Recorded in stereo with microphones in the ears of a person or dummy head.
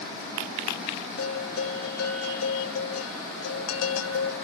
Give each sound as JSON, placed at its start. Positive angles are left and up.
{"t": 1.2, "sound": "a bell", "side_deg": 85, "distance_m": 1.7}